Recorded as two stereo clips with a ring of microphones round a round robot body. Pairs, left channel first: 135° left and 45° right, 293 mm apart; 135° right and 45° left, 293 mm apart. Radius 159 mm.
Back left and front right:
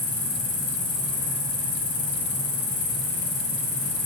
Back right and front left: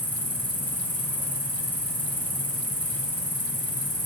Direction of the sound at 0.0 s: 140° left.